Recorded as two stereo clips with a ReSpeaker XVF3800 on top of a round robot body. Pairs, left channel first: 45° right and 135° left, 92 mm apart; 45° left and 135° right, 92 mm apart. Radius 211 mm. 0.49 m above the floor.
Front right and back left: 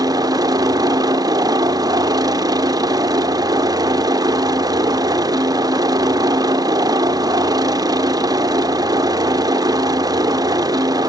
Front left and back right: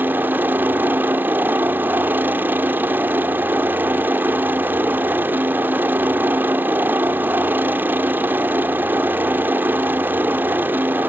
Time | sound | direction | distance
0.0 | a helicopter | 160° left | ?